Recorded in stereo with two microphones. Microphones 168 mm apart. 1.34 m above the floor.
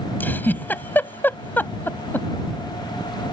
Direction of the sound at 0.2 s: 10° left (ahead or behind).